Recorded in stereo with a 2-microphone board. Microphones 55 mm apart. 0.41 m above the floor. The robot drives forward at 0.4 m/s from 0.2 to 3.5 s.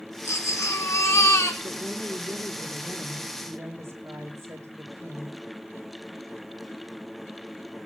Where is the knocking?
No knocking in this recording.